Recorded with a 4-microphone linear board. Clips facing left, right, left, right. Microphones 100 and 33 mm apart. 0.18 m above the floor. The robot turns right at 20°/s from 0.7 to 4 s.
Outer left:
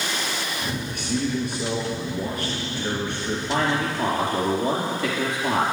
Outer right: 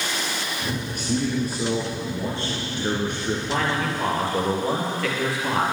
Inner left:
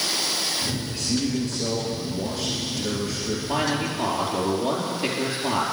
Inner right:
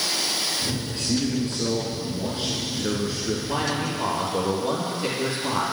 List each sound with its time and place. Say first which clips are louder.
0.9 s a man speaking: outer right 1 dB, inner right 1 dB; 65° right, 2.5 m; by 3.4 s 15° right, 2.5 m
3.5 s a man speaking: outer left 3 dB, inner left 4 dB; 10° left (ahead or behind), 4.5 m; by 5.6 s 20° left (ahead or behind), 4.5 m